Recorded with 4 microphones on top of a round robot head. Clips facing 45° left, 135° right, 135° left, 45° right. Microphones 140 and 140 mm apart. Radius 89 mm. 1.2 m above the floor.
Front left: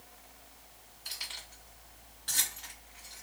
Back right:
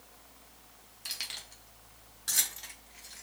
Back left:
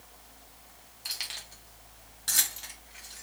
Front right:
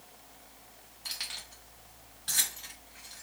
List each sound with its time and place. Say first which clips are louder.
1.1 s keys jangling: even, back left 1 dB; 150° right, 1.3 m; by 3.2 s 160° left, 1.7 m